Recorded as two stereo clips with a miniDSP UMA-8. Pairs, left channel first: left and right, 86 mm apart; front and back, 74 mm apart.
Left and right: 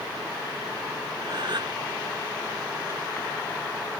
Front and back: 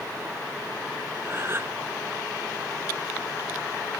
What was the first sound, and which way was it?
A gasp, 125° right.